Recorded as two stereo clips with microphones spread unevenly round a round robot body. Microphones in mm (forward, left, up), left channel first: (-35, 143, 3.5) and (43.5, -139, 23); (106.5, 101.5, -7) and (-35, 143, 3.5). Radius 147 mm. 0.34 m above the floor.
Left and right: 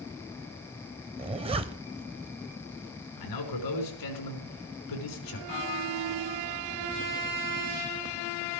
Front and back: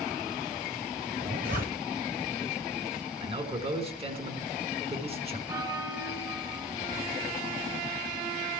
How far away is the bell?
About 2.5 m.